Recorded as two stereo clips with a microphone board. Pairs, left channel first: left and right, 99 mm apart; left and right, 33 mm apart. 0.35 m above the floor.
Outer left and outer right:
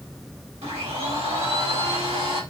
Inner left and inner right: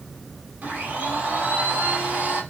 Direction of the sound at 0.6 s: 80° right.